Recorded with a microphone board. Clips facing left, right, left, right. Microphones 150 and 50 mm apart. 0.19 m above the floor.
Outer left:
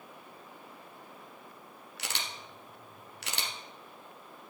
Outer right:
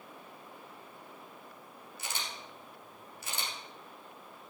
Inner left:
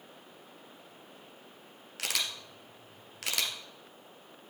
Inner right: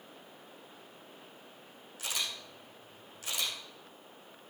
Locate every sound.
2.0 s a camera shutter: 75° left (ahead or behind), 1.7 m